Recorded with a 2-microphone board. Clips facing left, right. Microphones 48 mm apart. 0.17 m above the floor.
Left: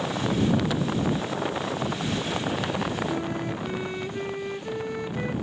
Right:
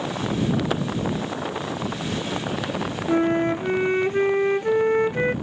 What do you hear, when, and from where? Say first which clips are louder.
0.7 s a clap: right 3 dB; 45° right (ahead or behind)
3.1 s a flute: right 9 dB; 45° right (ahead or behind)